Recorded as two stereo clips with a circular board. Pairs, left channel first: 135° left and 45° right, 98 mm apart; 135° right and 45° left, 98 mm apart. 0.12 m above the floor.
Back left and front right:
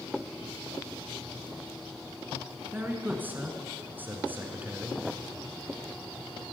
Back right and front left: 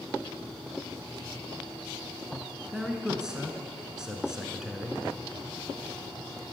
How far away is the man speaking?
About 1.1 m.